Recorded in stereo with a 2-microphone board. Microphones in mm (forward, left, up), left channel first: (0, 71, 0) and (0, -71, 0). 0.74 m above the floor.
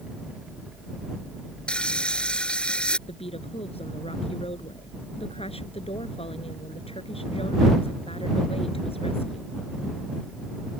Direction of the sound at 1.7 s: 5° left (ahead or behind).